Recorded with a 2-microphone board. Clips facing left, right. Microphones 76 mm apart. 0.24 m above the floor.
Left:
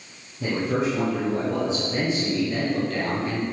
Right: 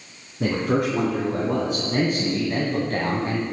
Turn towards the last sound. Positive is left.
turn(degrees=-30)  # may be behind; listen again after turning